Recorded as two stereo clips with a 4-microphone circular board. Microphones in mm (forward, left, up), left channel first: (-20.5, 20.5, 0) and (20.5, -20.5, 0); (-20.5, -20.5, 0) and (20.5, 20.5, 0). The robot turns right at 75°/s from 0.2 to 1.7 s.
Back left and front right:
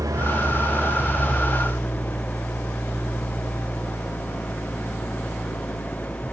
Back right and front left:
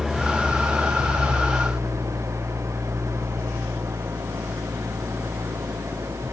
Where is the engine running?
40° right; by 6.3 s 75° left.